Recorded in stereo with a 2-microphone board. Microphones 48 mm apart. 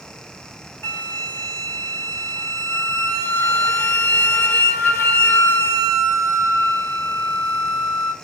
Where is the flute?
55° left (ahead or behind), 2 m.